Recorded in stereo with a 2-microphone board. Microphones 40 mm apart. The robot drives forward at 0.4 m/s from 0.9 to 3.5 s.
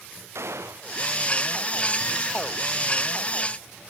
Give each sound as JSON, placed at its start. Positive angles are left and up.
{"t": 0.3, "sound": "a gunshot", "side_deg": -80}